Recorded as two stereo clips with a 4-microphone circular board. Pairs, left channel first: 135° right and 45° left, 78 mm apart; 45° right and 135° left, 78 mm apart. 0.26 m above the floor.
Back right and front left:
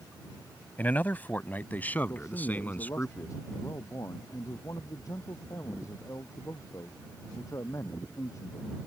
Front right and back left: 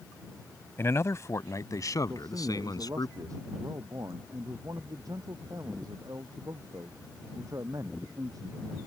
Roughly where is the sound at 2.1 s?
Behind.